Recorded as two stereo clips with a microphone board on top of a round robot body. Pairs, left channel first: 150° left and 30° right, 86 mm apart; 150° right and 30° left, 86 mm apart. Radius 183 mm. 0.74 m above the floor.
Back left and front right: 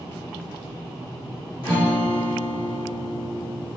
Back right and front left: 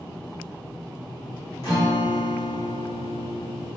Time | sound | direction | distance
1.6 | a guitar | 160° left | 2 m